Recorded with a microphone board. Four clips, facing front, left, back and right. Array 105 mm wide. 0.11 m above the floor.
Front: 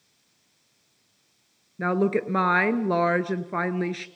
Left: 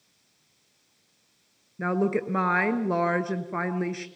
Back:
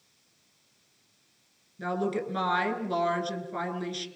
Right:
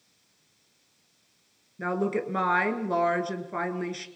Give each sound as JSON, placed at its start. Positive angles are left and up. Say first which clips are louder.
{"t": 1.8, "sound": "a woman speaking", "louder": "left 2 dB, front 6 dB", "azimuth_deg": 10, "distance_m": 1.3}